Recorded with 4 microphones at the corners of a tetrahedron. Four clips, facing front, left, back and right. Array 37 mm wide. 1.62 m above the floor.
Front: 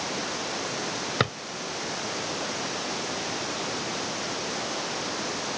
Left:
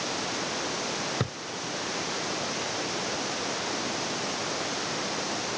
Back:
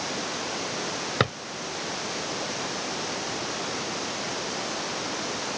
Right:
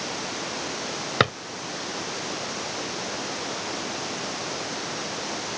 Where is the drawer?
95° right.